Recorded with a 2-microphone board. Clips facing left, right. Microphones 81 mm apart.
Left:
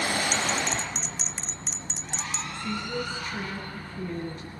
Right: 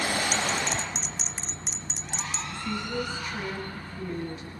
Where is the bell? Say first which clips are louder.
Even; 5° right (ahead or behind), 0.7 m.